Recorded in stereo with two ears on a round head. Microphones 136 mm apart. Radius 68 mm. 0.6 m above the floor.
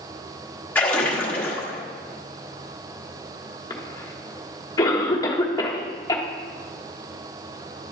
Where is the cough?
25° left (ahead or behind), 1.2 m.